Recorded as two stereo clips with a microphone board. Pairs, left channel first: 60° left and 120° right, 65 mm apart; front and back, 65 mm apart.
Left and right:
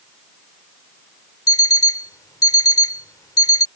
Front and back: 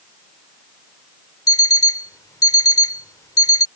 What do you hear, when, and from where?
1.5 s an alarm clock: 30° left